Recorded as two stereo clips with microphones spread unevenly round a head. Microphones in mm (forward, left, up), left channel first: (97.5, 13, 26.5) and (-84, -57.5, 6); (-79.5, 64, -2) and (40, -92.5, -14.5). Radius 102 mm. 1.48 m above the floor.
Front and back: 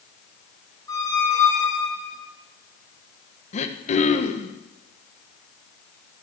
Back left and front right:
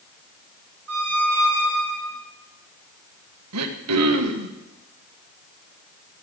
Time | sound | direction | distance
0.9 | a squeak | 50° right | 6.5 m
3.5 | throat clearing | 35° right | 1.4 m